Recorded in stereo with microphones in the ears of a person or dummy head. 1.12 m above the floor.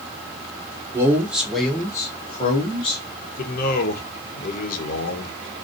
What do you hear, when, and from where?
0.9 s a man speaking: 15° right (ahead or behind), 0.9 m; by 3.0 s 30° left (ahead or behind), 1.2 m
3.4 s a man speaking: 50° left (ahead or behind), 0.9 m